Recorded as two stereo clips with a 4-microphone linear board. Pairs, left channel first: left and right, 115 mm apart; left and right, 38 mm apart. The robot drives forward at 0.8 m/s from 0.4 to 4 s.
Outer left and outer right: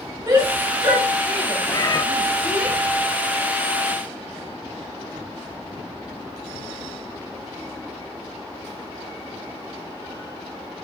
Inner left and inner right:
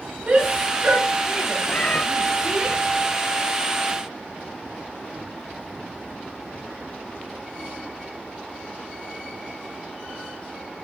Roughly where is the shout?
Right.